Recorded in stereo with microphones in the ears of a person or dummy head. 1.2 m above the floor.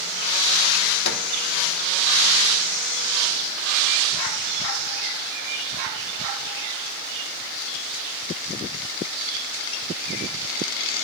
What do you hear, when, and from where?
1.1 s a microwave: 60° left (ahead or behind), 1.2 m